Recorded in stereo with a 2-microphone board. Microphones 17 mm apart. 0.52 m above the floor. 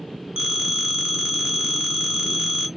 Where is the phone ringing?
55° right (ahead or behind), 1.1 m.